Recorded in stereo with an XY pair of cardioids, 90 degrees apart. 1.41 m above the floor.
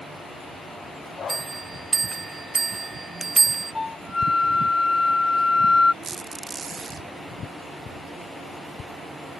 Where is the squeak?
55° right.